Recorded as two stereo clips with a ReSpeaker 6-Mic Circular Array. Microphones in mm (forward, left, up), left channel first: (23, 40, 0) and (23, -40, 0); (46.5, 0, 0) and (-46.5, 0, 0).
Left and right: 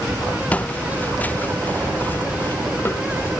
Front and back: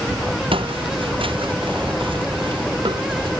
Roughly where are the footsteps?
Behind.